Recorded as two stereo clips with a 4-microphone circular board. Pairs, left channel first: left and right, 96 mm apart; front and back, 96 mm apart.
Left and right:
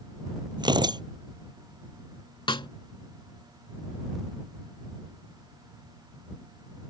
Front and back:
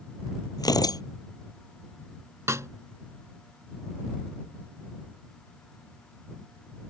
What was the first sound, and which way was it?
Tearing paper, 50° right.